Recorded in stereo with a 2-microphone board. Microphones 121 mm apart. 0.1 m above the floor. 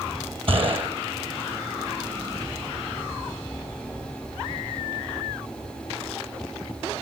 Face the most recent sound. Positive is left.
turn(degrees=-50)  # may be behind; listen again after turning